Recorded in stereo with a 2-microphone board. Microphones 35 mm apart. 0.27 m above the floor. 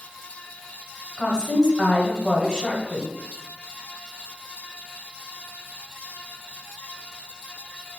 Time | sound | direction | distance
1.2 | a woman speaking | 25° left (ahead or behind) | 1.3 m